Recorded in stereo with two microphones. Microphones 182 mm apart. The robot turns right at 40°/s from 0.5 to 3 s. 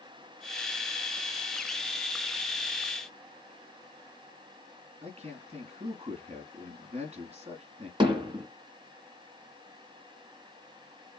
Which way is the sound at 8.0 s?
25° right (ahead or behind).